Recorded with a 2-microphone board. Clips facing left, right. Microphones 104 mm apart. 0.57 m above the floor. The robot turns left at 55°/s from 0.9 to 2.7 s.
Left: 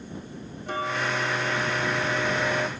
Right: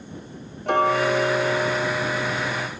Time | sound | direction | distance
0.7 | ticking | 105° right | ?